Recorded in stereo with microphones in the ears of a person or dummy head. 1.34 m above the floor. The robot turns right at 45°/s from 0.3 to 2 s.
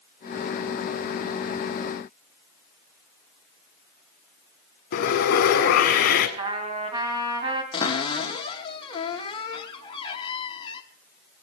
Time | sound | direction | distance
4.9 | sawing | 45° left (ahead or behind) | 1.9 m
6.4 | a trumpet | 35° right (ahead or behind) | 2.5 m
7.7 | a cupboard door | 20° left (ahead or behind) | 1.1 m